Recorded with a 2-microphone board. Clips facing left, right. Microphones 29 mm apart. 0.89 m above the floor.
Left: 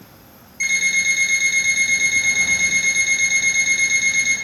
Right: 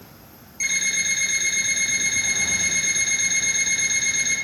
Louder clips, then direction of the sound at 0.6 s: Left 6 dB; 20° left (ahead or behind).